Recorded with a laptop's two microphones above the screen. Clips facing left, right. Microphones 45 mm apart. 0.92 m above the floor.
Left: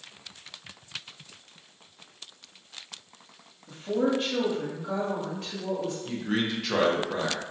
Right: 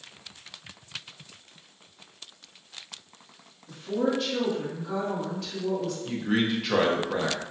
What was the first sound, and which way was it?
A woman speaking, 50° left (ahead or behind).